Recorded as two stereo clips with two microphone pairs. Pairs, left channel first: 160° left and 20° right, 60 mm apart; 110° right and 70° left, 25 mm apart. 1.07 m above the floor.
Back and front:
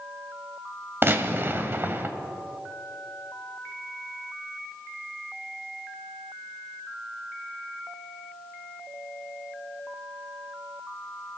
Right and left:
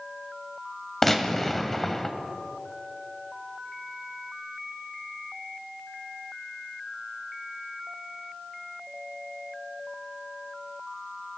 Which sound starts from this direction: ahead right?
A gunshot, at 1.0 s.